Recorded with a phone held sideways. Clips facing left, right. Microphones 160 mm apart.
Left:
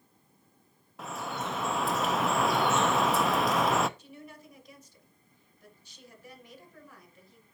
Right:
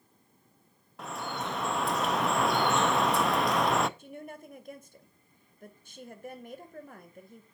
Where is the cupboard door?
No cupboard door in this recording.